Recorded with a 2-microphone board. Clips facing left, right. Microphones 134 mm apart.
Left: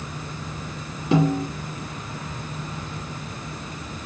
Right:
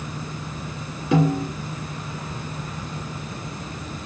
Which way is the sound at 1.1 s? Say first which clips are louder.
Even; 30° left (ahead or behind).